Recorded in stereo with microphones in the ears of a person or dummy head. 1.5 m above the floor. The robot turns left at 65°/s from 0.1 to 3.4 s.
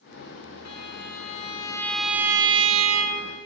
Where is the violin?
90° left, 1.6 m; by 3.4 s 85° right, 1.6 m.